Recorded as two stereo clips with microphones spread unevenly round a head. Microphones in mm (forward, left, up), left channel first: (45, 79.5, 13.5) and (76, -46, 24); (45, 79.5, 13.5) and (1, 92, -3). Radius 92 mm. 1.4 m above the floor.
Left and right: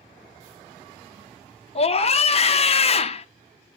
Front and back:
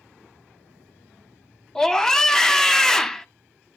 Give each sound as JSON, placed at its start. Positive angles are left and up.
{"t": 1.8, "sound": "a scream", "azimuth_deg": 70, "distance_m": 0.9}